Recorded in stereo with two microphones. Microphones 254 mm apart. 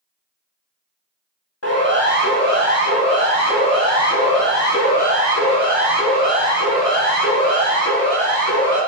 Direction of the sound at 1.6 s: 75° left (ahead or behind).